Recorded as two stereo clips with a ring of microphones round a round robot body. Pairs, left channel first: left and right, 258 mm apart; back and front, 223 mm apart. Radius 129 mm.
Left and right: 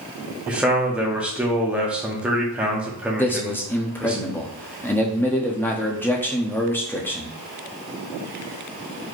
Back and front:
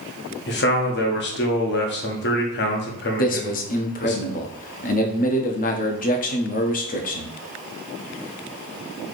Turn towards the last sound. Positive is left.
turn(degrees=165)